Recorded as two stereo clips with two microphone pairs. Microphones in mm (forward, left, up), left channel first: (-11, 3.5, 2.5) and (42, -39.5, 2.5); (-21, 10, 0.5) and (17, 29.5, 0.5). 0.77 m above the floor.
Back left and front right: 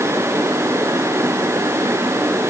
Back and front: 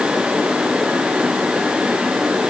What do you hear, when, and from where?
Only background noise.